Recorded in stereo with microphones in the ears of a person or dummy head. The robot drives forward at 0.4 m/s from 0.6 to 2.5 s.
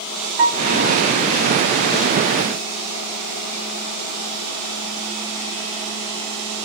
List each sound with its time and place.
0.4 s a piano: 65° right (ahead or behind), 1.8 m